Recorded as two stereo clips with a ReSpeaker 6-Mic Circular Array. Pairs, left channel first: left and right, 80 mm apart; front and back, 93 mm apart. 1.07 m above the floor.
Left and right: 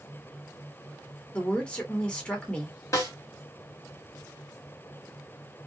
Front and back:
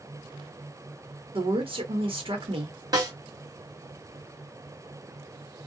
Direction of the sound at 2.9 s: 135° left.